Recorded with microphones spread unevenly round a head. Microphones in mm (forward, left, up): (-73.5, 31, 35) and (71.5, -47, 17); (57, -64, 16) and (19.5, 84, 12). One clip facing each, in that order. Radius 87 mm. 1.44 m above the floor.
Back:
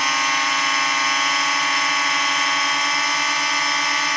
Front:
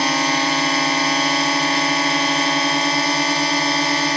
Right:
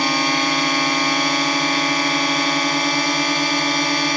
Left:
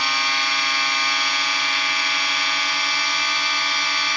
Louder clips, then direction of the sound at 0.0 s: Front 6 dB, right 8 dB; 55° right.